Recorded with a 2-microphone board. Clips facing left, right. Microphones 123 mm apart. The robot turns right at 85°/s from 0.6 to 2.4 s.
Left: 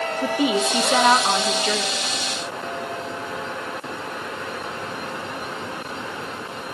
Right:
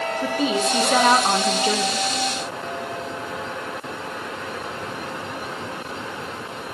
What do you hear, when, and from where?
0.2 s a woman speaking: 15° left (ahead or behind), 0.9 m; by 2.0 s 25° right (ahead or behind), 0.9 m